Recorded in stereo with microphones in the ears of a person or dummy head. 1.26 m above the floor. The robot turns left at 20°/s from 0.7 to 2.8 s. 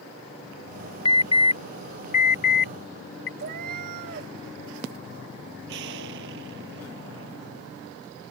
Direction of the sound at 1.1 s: 30° left (ahead or behind).